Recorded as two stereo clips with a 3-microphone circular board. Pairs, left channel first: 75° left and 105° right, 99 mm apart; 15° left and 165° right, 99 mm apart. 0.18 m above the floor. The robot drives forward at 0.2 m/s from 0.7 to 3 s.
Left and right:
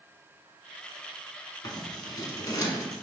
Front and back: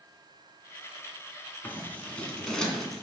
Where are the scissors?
80° left, 0.8 m; by 3.0 s 105° left, 0.8 m.